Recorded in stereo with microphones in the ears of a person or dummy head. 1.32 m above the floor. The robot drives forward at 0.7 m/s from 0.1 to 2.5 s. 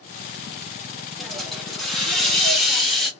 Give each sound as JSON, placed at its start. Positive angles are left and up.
{"t": 1.2, "sound": "a hiss", "side_deg": 5, "distance_m": 0.7}